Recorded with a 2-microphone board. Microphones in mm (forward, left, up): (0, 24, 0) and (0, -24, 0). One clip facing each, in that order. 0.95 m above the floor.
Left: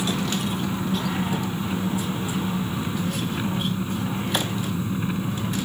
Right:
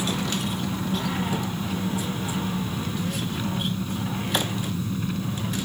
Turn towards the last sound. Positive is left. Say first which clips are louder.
# left 2 dB
turn(degrees=20)  # may be behind; listen again after turning